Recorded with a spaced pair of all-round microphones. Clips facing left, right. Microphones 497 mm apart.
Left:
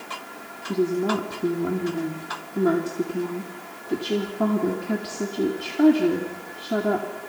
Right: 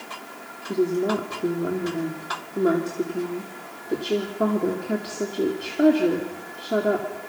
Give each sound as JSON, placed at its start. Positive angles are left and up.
{"t": 0.7, "sound": "a woman speaking", "side_deg": 15, "distance_m": 2.5}